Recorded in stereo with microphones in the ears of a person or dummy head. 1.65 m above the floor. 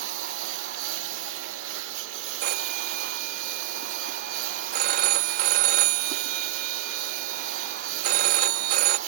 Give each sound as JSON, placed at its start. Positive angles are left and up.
{"t": 0.0, "sound": "a lawn mower", "side_deg": -70}
{"t": 2.4, "sound": "a phone ringing", "side_deg": -45}